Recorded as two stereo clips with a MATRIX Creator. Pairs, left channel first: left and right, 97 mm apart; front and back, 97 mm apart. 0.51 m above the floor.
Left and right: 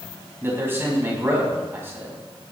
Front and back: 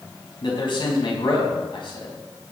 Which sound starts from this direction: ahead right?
A man speaking, at 0.4 s.